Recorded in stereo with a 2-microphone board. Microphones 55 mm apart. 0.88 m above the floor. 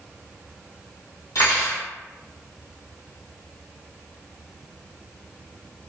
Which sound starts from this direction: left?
Cutlery clinking, at 1.4 s.